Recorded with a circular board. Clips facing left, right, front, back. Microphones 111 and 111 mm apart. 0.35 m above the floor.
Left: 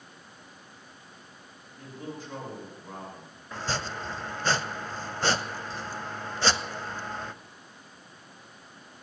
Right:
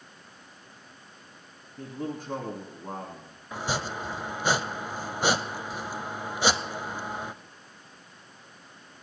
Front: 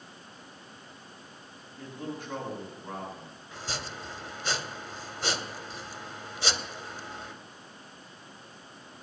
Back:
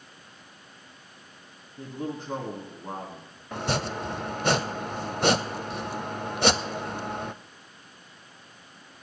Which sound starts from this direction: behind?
Chopping, at 3.5 s.